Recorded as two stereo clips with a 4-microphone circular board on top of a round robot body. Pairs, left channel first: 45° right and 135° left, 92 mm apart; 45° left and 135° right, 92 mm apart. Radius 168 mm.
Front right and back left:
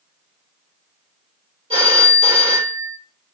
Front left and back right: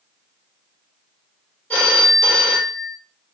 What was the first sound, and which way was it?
A phone ringing, 120° left.